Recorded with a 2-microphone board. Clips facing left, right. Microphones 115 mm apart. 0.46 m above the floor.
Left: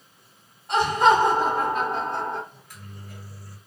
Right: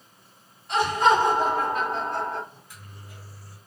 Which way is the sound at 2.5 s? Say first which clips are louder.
Left 3 dB; 60° left (ahead or behind).